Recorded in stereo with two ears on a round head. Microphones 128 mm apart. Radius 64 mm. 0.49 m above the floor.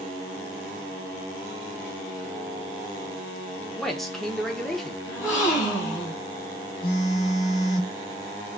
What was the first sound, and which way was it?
A man speaking, 5° left (ahead or behind).